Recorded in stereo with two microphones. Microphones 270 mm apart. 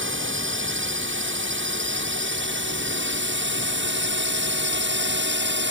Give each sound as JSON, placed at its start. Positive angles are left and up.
{"t": 0.0, "sound": "a drone", "side_deg": -45}